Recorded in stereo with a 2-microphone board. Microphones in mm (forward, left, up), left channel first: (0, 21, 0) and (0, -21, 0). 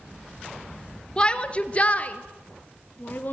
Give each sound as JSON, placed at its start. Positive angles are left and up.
{"t": 1.2, "sound": "a shout", "side_deg": 25, "distance_m": 1.6}